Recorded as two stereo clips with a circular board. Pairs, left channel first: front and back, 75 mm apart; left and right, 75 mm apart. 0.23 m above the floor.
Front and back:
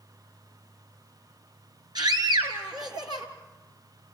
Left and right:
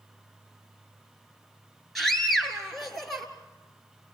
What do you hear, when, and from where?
1.9 s a scream: straight behind, 3.5 m